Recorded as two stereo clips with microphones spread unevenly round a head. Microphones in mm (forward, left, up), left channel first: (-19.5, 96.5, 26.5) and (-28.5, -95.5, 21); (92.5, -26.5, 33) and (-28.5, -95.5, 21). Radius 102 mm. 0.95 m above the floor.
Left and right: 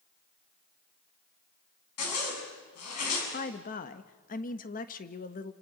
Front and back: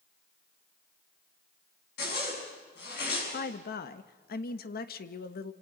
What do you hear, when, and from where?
2.0 s a zipper: 70° left, 6.5 m
3.3 s a woman speaking: 40° left, 1.2 m